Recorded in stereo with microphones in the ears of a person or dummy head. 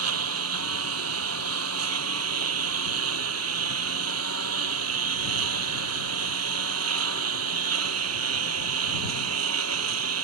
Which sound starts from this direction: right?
A lawn mower, at 0.0 s.